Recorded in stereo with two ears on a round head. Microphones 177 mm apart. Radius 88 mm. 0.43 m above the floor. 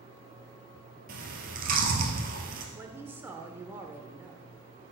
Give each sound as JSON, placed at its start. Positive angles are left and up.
{"t": 1.1, "sound": "chewing", "side_deg": -50, "distance_m": 1.7}
{"t": 2.8, "sound": "a woman speaking", "side_deg": -10, "distance_m": 1.0}